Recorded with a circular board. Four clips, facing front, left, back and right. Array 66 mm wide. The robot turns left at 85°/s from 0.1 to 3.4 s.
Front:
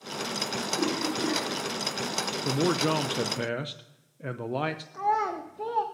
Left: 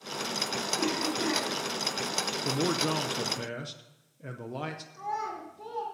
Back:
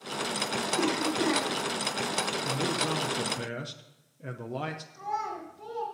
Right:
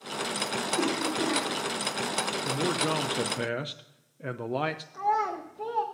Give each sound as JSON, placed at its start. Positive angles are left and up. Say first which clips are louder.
{"t": 0.8, "sound": "a cough", "louder": "right 2 dB, back 1 dB", "azimuth_deg": -115, "distance_m": 4.5}
{"t": 2.5, "sound": "a man speaking", "louder": "left 1 dB, front 8 dB", "azimuth_deg": 25, "distance_m": 0.5}
{"t": 4.9, "sound": "a child speaking", "louder": "right 7 dB, front 7 dB", "azimuth_deg": -30, "distance_m": 1.0}